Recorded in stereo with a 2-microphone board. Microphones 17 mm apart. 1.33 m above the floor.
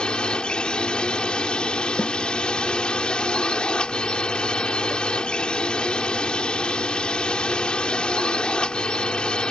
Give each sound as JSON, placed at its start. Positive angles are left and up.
{"t": 0.0, "sound": "a drone", "side_deg": 70}
{"t": 2.0, "sound": "a snare drum", "side_deg": 85}